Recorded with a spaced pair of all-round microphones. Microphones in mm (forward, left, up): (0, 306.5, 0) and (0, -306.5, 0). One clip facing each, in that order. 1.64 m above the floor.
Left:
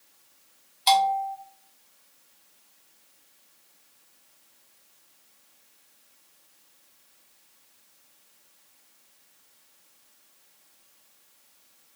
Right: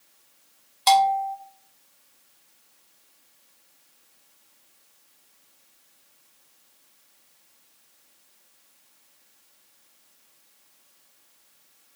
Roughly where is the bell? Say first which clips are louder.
Right 3 dB; right.